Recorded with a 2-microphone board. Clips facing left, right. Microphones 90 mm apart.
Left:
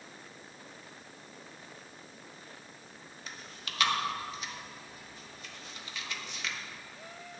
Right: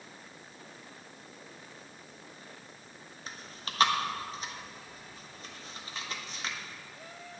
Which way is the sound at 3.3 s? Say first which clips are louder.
Right 3 dB; 35° right (ahead or behind).